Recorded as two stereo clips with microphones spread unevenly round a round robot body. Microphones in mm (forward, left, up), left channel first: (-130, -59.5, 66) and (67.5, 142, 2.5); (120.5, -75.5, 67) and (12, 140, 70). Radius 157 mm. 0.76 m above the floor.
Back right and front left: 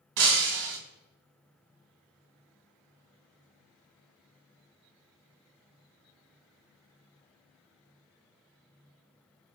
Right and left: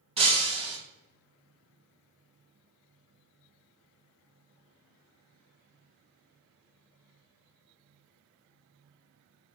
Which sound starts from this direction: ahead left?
Breaking glass, at 0.2 s.